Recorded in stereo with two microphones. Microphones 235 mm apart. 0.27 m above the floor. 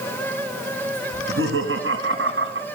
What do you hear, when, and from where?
1.1 s laughter: 65° right (ahead or behind), 3.5 m; by 2.6 s 60° right (ahead or behind), 3 m